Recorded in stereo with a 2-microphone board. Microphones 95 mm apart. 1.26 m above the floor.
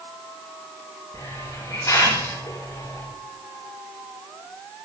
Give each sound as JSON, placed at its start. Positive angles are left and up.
{"t": 1.1, "sound": "a hiss", "side_deg": 30, "distance_m": 5.5}